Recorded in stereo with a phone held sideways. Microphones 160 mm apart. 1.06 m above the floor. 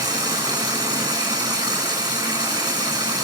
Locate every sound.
0.0 s running water: 25° right (ahead or behind), 9.5 m